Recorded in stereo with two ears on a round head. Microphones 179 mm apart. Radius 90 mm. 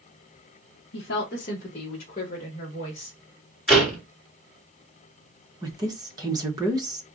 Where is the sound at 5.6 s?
20° right (ahead or behind), 1.1 m.